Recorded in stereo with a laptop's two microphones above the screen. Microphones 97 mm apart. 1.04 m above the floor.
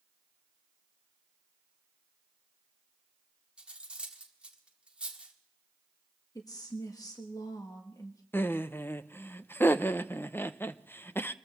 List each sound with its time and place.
3.6 s cutlery clinking: 10° right (ahead or behind), 1.4 m
6.3 s a woman speaking: 40° left (ahead or behind), 1.4 m
8.3 s laughter: 25° left (ahead or behind), 0.7 m